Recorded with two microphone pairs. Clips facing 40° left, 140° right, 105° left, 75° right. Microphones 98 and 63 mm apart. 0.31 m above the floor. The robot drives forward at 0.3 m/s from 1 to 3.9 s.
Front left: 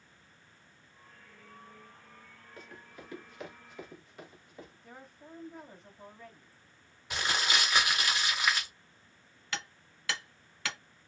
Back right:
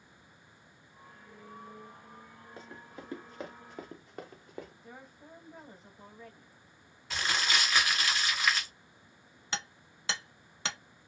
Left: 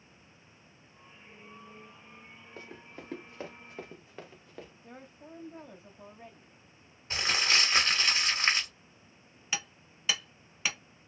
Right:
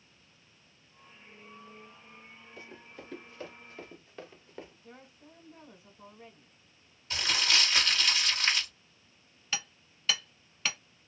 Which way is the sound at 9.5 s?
Straight behind.